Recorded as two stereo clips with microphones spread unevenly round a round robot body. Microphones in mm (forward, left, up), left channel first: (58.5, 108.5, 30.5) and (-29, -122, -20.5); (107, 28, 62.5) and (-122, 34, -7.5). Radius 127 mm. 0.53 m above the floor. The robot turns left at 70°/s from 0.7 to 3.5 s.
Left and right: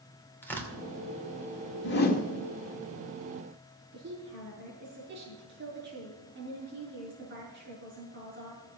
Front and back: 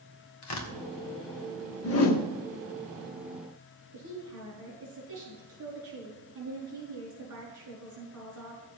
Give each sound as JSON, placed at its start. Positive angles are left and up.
{"t": 0.4, "sound": "tearing paper", "azimuth_deg": -20, "distance_m": 2.0}
{"t": 1.8, "sound": "a whoosh", "azimuth_deg": 30, "distance_m": 1.6}
{"t": 3.9, "sound": "a woman speaking", "azimuth_deg": -160, "distance_m": 6.5}